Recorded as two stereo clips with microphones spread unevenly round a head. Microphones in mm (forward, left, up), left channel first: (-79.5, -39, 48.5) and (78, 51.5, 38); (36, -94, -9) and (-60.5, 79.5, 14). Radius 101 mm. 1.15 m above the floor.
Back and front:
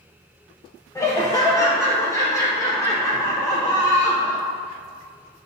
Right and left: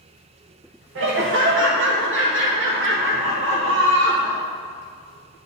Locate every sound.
0.9 s laughter: 140° left, 0.7 m